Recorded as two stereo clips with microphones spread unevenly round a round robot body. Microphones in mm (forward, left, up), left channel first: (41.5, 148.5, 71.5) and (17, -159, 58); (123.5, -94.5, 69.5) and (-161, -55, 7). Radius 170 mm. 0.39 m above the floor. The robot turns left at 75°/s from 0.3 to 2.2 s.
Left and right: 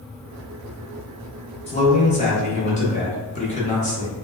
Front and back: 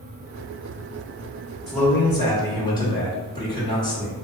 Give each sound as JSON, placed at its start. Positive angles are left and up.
{"t": 1.7, "sound": "a man speaking", "azimuth_deg": 115, "distance_m": 0.9}